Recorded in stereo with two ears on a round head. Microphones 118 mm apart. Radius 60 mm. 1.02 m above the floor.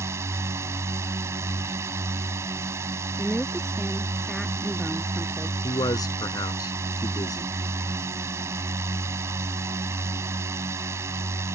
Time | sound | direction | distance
0.0 | a drone | 20° right (ahead or behind) | ?
3.2 | a woman speaking | centre (ahead or behind) | ?
5.6 | a man speaking | 30° left (ahead or behind) | ?